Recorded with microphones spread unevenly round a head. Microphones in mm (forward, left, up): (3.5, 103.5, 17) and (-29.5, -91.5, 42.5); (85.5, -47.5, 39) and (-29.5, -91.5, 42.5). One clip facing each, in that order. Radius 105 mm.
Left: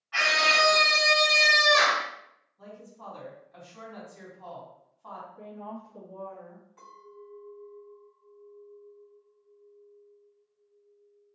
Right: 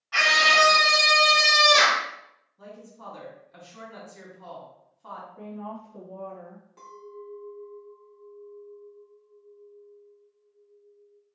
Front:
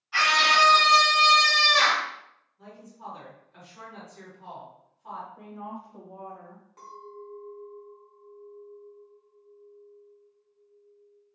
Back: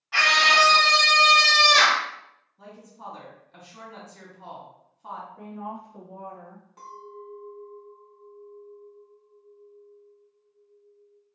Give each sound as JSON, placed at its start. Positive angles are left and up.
{"t": 0.1, "sound": "a scream", "azimuth_deg": -135, "distance_m": 1.6}
{"t": 2.6, "sound": "a woman speaking", "azimuth_deg": -160, "distance_m": 2.0}
{"t": 5.4, "sound": "a woman speaking", "azimuth_deg": -65, "distance_m": 1.4}
{"t": 6.8, "sound": "a clink", "azimuth_deg": -80, "distance_m": 1.7}